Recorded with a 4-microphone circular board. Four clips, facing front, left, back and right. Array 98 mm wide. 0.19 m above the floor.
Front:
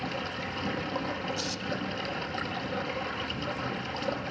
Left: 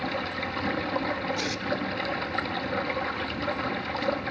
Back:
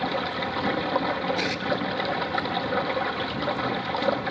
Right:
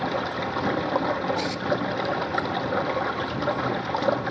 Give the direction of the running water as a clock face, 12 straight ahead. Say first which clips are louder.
Right 4 dB, back 7 dB; 4 o'clock.